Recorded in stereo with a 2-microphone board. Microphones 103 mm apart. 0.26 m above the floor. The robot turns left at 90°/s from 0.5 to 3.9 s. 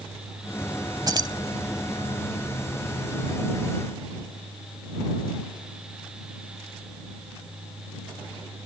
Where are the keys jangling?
45° right (ahead or behind); by 1.4 s 40° right (ahead or behind).